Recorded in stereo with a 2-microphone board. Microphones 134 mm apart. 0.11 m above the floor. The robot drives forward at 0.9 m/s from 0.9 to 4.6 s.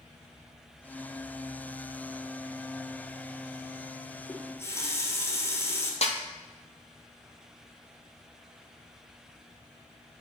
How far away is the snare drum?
About 1.0 m.